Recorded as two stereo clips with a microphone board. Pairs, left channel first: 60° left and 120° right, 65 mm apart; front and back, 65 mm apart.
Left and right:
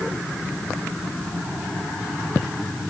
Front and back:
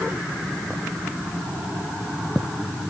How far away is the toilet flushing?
I don't hear a toilet flushing.